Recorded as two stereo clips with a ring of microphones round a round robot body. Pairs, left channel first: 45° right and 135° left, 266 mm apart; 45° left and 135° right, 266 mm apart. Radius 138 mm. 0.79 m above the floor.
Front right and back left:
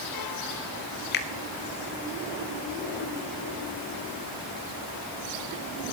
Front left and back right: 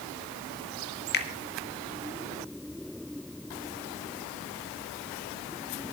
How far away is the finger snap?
About 1.4 m.